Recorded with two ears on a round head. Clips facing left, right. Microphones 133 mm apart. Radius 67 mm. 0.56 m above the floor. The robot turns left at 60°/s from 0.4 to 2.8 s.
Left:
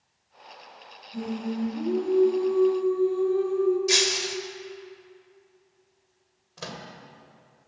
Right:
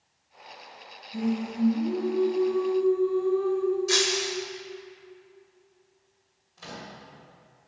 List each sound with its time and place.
1.1 s singing: 165° right, 4.5 m; by 3.8 s 95° left, 4.5 m
3.9 s breaking glass: 20° left (ahead or behind), 1.1 m
6.6 s a microwave: 70° left (ahead or behind), 1.9 m